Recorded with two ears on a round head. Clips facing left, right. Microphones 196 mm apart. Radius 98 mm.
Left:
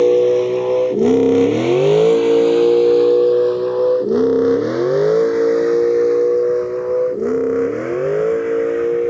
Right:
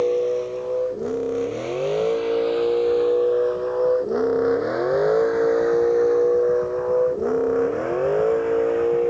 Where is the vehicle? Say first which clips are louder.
Left 9 dB; 75° left (ahead or behind); by 9.1 s 25° left (ahead or behind).